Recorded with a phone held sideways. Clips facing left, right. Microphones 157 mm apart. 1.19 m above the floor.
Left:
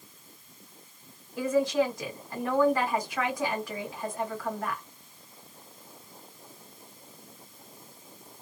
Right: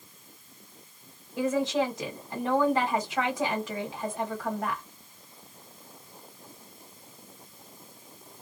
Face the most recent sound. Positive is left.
turn(degrees=-20)  # may be behind; listen again after turning